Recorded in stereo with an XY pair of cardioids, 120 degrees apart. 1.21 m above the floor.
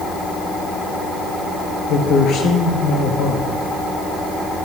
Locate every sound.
1.9 s a man speaking: 70° left, 1.8 m